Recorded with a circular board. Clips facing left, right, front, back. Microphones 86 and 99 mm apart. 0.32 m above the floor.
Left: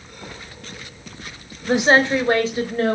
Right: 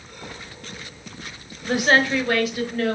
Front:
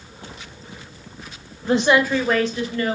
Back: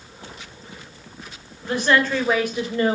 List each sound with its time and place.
1.7 s a woman speaking: 35° left, 1.4 m; by 3.0 s 135° left, 1.7 m